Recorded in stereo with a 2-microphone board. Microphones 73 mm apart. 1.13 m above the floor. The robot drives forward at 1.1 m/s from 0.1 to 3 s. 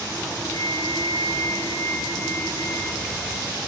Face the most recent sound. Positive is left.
turn(degrees=25)  # may be behind; listen again after turning